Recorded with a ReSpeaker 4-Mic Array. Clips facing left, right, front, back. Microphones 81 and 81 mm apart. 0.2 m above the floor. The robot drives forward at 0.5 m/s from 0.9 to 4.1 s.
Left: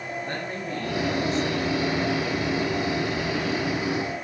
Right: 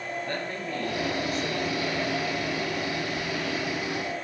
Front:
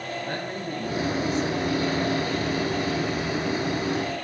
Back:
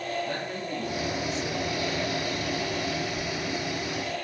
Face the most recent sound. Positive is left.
turn(degrees=50)